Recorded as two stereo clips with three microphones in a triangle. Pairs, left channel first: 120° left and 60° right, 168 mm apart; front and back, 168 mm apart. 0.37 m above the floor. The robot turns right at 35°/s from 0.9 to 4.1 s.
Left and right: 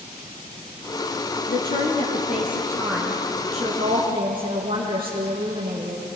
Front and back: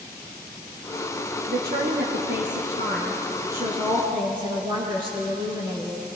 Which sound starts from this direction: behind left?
A woman speaking, at 1.5 s.